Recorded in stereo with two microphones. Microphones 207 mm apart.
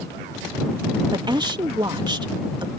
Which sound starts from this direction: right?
A woman speaking, at 1.1 s.